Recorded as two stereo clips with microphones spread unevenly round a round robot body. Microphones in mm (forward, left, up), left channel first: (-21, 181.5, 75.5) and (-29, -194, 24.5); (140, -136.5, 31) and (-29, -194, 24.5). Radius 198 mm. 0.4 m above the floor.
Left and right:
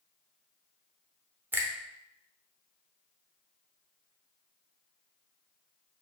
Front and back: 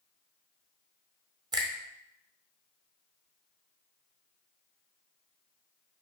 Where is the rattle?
I don't hear a rattle.